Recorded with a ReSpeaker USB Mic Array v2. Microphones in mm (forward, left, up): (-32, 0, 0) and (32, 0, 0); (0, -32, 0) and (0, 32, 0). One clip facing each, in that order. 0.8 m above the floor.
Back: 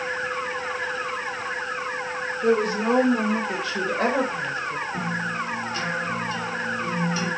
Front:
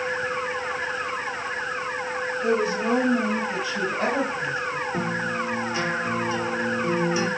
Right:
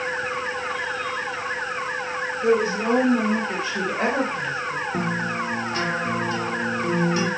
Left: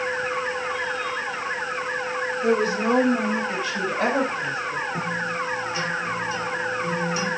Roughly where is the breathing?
No breathing in this recording.